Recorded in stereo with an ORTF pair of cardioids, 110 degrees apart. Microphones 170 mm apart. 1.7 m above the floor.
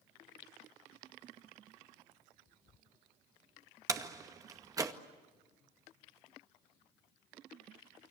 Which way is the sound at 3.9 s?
20° right.